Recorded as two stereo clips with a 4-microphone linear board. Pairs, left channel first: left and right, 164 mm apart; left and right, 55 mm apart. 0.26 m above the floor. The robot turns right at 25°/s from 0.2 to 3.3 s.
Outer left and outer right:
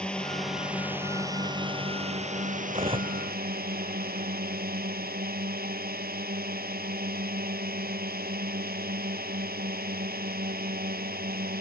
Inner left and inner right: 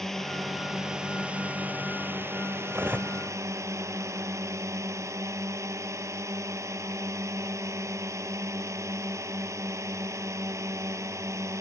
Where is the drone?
175° left; by 11.6 s 110° right.